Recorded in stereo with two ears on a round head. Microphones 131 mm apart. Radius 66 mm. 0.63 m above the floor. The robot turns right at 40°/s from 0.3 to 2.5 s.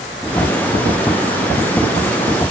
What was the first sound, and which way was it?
Only background noise.